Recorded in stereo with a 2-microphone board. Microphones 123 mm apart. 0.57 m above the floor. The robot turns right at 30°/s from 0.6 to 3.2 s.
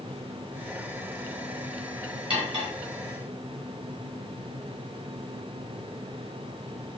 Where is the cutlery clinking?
50° right (ahead or behind), 2.5 m; by 2.7 s 35° right (ahead or behind), 2.5 m.